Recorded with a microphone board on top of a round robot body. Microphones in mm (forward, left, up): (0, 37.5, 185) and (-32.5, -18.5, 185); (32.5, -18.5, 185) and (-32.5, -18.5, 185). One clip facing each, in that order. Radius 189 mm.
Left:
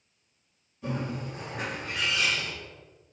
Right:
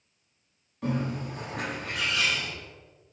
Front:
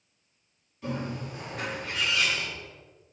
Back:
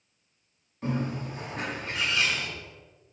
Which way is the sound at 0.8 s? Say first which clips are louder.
Right 3 dB, back 3 dB; 140° right.